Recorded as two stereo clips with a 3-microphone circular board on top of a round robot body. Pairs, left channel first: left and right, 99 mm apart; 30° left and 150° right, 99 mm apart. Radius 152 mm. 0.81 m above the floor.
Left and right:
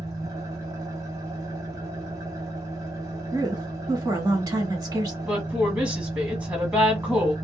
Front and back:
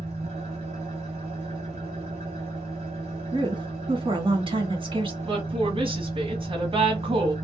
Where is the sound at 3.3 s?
140° right, 1.5 m.